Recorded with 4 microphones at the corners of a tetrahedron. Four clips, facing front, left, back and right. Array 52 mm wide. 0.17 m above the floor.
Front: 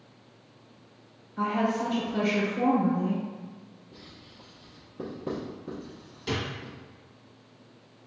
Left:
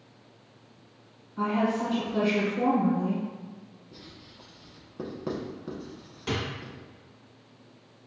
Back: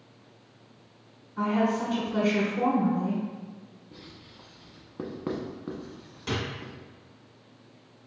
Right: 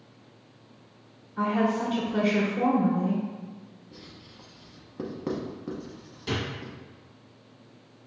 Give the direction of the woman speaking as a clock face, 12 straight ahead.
5 o'clock.